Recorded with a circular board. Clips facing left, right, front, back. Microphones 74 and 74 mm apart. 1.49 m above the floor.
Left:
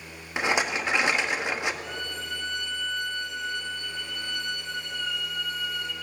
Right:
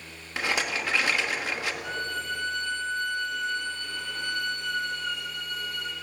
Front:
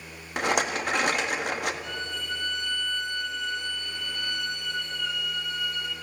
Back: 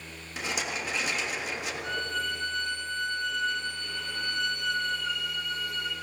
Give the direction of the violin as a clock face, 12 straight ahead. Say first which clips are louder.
Right 3 dB, back 3 dB; 4 o'clock.